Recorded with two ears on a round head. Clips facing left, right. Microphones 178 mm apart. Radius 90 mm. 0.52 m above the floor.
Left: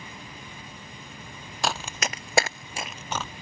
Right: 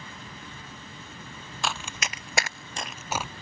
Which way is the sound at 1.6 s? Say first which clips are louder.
Left 4 dB; 35° left (ahead or behind).